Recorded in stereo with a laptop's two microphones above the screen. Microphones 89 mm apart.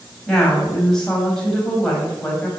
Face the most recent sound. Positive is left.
turn(degrees=5)  # may be behind; listen again after turning